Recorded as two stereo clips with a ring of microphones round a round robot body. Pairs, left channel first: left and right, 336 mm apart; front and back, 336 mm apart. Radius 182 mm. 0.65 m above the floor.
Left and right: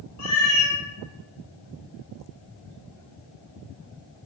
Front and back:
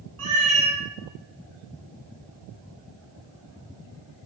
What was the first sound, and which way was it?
A cat meowing, 135° left.